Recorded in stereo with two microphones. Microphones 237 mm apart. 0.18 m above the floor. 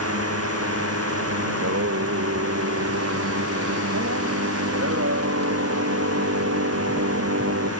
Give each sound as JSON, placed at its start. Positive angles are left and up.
{"t": 0.0, "sound": "a drone", "side_deg": -85}
{"t": 1.5, "sound": "singing", "side_deg": -85}